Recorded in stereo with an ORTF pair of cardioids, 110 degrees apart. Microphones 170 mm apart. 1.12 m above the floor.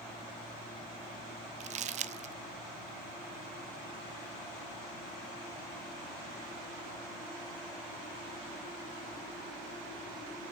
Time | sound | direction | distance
1.6 | crumpling | 45° right | 0.6 m